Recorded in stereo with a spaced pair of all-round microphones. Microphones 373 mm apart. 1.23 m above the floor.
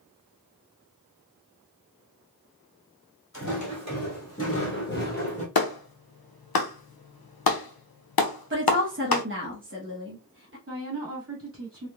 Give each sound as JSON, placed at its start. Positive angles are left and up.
{"t": 3.3, "sound": "footsteps", "side_deg": 50, "distance_m": 1.9}
{"t": 5.5, "sound": "a clap", "side_deg": 85, "distance_m": 0.5}
{"t": 8.5, "sound": "a woman speaking", "side_deg": -35, "distance_m": 1.1}
{"t": 10.7, "sound": "a woman speaking", "side_deg": -35, "distance_m": 1.8}